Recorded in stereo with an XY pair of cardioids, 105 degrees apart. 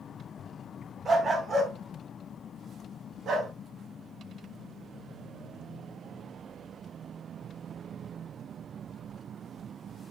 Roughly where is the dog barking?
Ahead right.